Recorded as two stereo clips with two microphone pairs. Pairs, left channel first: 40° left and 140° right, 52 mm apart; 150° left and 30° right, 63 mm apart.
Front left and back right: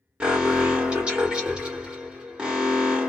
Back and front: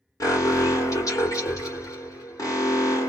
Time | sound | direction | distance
0.2 | an alarm | 150° left | 1.9 m